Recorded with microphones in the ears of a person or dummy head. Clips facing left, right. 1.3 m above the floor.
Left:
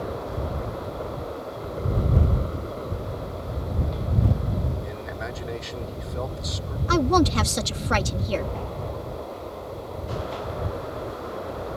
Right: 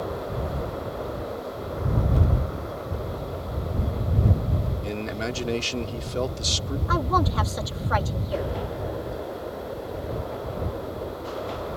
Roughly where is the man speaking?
Right.